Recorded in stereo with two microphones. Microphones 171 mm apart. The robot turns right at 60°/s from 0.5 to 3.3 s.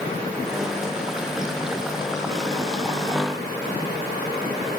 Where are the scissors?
I don't hear scissors.